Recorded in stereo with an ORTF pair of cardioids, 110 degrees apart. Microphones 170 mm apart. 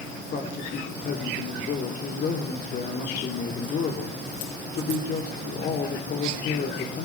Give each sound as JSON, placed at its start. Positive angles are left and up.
{"t": 0.3, "sound": "a man speaking", "azimuth_deg": 55, "distance_m": 3.5}